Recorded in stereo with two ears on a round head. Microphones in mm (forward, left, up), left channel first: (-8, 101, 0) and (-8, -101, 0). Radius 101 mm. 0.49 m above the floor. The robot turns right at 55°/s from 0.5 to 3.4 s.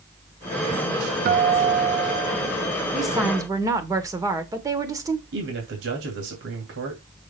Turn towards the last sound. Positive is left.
turn(degrees=-60)  # may be behind; listen again after turning